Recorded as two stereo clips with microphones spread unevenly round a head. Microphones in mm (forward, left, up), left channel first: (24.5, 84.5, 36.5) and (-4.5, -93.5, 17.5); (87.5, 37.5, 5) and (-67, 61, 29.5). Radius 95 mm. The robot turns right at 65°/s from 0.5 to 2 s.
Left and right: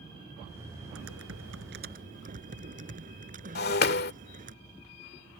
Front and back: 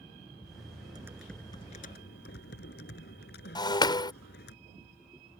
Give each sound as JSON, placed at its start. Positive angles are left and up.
{"t": 0.9, "sound": "typing on a keyboard", "azimuth_deg": -120}
{"t": 3.5, "sound": "breaking glass", "azimuth_deg": 55}